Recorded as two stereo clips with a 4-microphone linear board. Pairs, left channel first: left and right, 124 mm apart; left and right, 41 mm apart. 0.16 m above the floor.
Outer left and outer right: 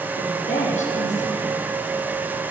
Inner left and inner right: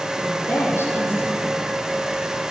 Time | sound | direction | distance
0.2 | a woman speaking | 75° left (ahead or behind) | 5 m